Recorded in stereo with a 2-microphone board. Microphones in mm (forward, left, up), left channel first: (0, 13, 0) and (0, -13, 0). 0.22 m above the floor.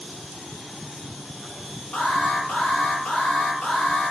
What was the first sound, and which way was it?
An alarm, 65° left (ahead or behind).